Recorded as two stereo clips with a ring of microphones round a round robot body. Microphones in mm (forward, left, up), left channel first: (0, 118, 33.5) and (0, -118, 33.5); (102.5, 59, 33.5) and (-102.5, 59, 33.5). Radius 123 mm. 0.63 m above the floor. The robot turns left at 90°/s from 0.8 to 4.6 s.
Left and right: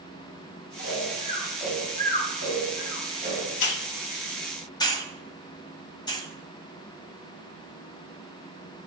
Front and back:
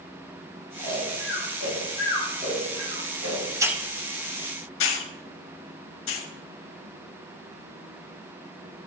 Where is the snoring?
75° left, 5 m; by 3.5 s 165° right, 5 m.